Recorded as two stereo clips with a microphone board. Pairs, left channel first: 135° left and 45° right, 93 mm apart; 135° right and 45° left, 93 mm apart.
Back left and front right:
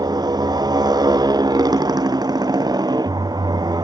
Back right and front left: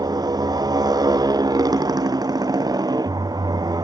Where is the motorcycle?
Straight ahead.